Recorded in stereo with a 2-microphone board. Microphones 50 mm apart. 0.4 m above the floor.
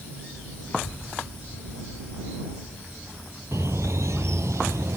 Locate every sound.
0.7 s a child speaking: 50° left (ahead or behind)
3.5 s a bird: 80° right